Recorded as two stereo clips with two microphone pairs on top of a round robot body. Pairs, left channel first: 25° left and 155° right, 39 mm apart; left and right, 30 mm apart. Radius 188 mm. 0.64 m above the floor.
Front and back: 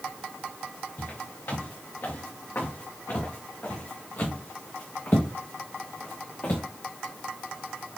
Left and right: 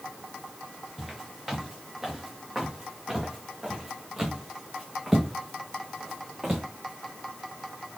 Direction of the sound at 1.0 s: 5° right.